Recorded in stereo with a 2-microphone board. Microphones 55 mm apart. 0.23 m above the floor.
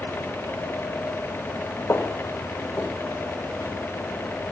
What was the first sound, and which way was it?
Footsteps, 45° left (ahead or behind).